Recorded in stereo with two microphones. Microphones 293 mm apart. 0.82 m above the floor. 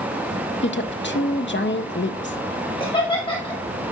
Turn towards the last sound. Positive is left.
turn(degrees=15)  # may be behind; listen again after turning